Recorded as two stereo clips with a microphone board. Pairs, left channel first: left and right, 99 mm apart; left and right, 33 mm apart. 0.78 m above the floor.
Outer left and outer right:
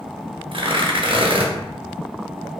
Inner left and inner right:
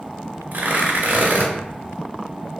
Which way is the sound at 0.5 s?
60° right (ahead or behind).